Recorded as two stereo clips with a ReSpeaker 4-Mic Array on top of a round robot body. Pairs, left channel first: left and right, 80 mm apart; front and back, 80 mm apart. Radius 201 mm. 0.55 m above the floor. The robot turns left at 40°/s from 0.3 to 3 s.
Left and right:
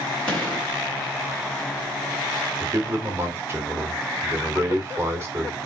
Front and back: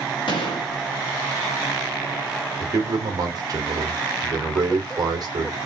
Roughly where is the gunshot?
Ahead.